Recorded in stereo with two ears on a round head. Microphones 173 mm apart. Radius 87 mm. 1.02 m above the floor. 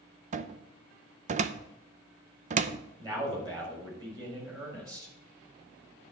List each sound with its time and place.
0.3 s a cupboard door: 35° right (ahead or behind), 0.5 m
3.0 s a man speaking: 20° right (ahead or behind), 4.5 m